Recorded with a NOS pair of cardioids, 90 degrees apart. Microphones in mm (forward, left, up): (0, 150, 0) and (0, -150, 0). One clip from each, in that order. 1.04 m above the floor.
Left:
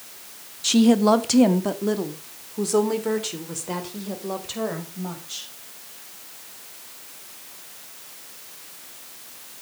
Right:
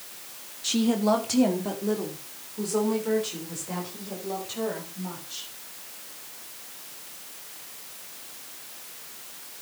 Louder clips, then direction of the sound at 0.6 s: Left 6 dB; 35° left.